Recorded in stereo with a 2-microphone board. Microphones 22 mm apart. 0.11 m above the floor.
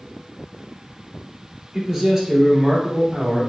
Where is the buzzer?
I don't hear a buzzer.